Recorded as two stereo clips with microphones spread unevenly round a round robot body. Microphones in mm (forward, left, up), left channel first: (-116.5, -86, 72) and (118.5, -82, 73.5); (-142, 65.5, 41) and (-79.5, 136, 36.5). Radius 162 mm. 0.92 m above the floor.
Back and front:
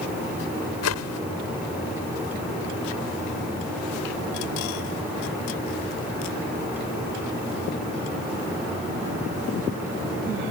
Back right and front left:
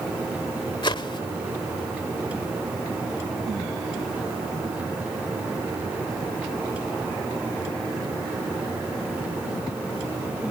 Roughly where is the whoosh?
Behind.